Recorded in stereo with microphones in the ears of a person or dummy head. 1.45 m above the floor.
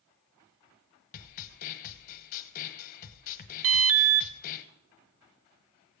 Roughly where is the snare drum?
Left.